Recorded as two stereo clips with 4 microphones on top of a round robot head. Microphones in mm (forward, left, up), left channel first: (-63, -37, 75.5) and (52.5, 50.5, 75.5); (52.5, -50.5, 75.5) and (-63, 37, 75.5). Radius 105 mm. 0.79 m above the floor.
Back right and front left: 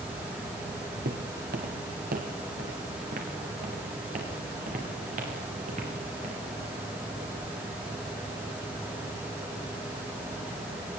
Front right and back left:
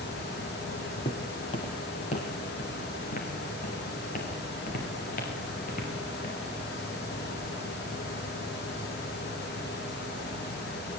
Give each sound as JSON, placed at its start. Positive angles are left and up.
{"t": 1.1, "sound": "footsteps", "azimuth_deg": 25, "distance_m": 1.9}